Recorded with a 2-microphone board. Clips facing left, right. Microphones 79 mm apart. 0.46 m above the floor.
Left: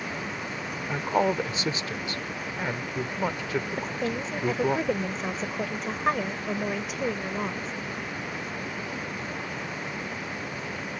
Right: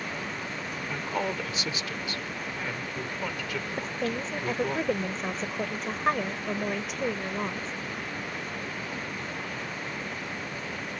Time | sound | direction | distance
0.9 | a woman speaking | 35° left (ahead or behind) | ?
3.8 | a woman speaking | centre (ahead or behind) | ?